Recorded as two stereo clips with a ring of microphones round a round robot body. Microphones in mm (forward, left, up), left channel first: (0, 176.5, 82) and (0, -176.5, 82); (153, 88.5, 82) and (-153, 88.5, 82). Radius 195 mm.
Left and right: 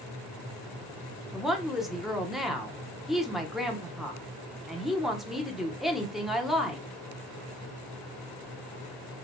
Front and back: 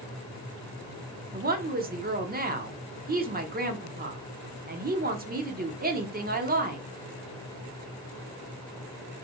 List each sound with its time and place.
1.3 s a woman speaking: straight behind, 1.0 m